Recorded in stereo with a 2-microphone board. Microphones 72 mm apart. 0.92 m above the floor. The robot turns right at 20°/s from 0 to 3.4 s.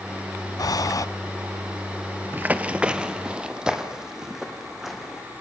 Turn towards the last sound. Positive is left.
turn(degrees=-5)  # may be behind; listen again after turning